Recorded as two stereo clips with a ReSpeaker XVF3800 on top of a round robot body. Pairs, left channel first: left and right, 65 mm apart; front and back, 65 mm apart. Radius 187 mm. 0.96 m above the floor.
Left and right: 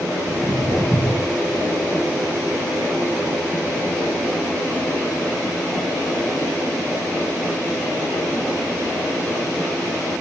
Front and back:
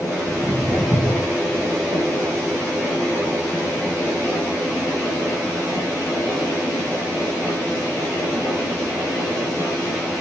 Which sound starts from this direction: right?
Footsteps, at 0.3 s.